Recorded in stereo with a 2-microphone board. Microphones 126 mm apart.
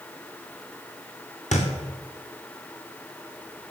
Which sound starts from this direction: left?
A thud, at 1.5 s.